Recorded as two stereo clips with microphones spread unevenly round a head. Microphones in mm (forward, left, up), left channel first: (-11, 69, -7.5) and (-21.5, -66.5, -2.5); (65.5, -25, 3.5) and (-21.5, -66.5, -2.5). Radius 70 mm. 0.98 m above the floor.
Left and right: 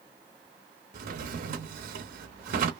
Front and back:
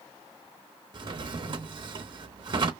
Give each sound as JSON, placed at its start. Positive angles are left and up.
{"t": 0.9, "sound": "a drawer", "azimuth_deg": -115, "distance_m": 0.6}